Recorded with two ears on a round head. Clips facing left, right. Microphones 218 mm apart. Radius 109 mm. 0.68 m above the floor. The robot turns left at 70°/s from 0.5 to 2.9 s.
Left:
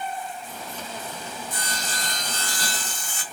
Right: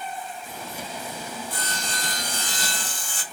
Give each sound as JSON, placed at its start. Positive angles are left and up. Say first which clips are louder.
{"t": 1.5, "sound": "sawing", "louder": "even", "azimuth_deg": 35, "distance_m": 0.8}